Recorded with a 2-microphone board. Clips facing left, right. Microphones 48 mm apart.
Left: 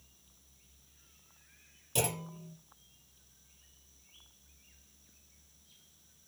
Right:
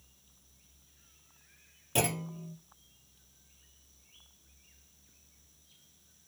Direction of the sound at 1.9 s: 35° right (ahead or behind).